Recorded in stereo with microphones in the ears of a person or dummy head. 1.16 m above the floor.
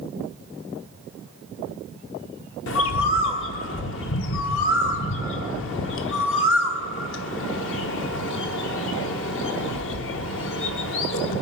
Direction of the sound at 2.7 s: 60° left (ahead or behind).